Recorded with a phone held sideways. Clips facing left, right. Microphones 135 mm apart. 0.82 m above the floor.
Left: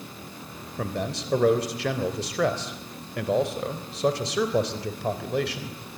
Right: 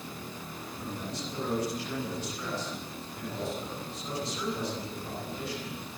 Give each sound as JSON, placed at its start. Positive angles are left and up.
{"t": 0.8, "sound": "a man speaking", "side_deg": 75, "distance_m": 3.5}